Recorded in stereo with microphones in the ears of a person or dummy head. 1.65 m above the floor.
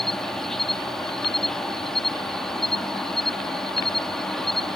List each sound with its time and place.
0.0 s an insect: 5° left (ahead or behind)